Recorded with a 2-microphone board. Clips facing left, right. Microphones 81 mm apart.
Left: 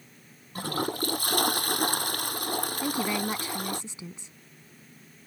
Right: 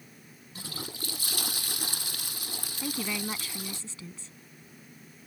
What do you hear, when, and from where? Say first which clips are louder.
0.6 s a toilet flushing: left 12 dB; 55° left (ahead or behind)
2.8 s a woman speaking: left 3 dB; 20° left (ahead or behind)